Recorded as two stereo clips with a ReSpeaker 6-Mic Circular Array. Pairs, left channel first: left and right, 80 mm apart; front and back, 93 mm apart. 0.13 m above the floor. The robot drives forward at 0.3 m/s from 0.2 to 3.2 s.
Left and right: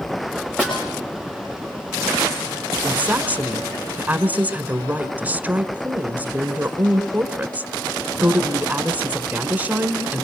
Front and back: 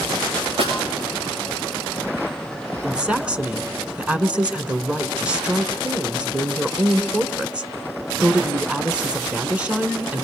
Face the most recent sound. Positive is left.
turn(degrees=-125)